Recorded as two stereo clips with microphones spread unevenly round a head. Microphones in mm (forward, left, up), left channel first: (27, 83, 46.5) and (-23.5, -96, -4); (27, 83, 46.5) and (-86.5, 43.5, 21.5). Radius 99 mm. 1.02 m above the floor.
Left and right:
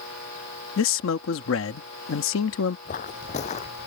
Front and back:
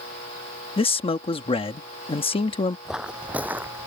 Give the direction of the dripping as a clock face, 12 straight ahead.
No dripping in this recording.